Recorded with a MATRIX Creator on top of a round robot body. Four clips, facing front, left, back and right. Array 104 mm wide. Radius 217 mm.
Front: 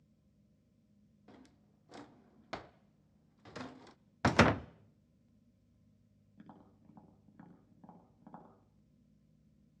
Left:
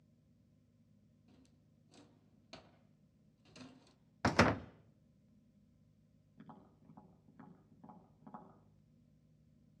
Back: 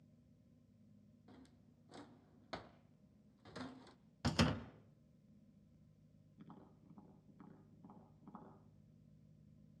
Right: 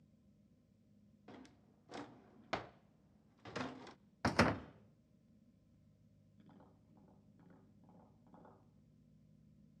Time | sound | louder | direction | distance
1.3 | a drawer | right 11 dB, front 4 dB | 75° right | 0.9 m
4.2 | a door slam | left 3 dB, front 10 dB | 15° left | 0.8 m
6.4 | tapping | left 6 dB, front 3 dB | 35° left | 10 m